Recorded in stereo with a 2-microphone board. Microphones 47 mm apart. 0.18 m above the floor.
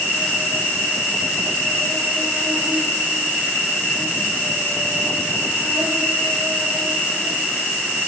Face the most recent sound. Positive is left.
turn(degrees=-65)  # may be behind; listen again after turning